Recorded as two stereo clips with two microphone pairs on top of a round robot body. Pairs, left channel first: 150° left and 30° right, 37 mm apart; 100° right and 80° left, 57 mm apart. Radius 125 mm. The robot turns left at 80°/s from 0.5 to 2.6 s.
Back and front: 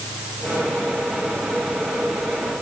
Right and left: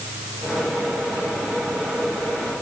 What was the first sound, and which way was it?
Only background noise.